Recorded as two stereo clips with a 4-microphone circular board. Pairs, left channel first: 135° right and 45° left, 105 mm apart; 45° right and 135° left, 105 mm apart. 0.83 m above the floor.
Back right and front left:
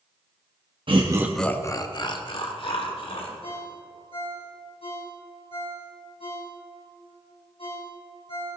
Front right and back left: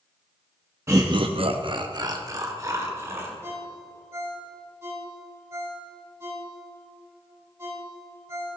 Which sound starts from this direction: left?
Laughter, at 0.9 s.